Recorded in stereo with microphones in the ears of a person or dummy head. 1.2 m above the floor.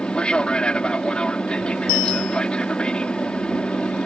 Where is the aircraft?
5° left (ahead or behind).